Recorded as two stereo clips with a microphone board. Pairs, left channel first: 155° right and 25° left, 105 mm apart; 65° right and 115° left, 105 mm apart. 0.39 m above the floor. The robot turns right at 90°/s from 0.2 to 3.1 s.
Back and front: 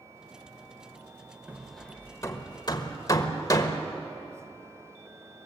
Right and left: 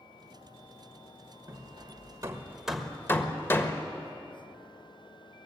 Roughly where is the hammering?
Left.